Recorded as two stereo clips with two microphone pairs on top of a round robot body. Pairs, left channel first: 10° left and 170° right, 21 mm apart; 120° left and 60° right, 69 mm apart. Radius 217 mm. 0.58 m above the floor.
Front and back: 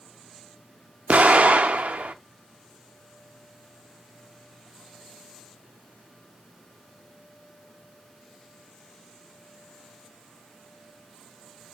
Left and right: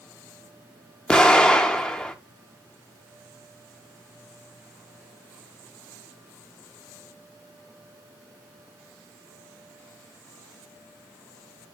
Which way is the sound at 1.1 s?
165° right.